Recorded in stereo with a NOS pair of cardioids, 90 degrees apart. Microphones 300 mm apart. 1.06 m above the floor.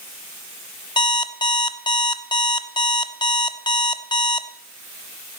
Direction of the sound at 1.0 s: 15° left.